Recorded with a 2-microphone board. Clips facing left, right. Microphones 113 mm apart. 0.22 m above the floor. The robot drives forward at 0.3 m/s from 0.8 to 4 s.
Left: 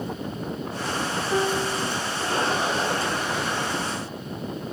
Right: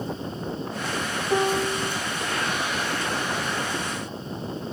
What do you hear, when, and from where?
1.3 s a piano: 35° right (ahead or behind), 0.6 m